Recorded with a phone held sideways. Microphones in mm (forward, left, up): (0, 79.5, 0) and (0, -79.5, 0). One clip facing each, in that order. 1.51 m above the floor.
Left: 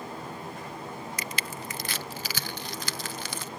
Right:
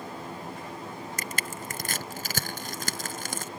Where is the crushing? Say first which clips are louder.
Even; 45° right (ahead or behind).